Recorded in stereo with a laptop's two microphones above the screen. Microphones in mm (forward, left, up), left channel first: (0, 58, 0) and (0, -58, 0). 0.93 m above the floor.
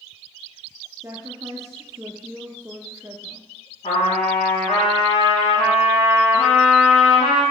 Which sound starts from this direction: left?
A trumpet, at 3.8 s.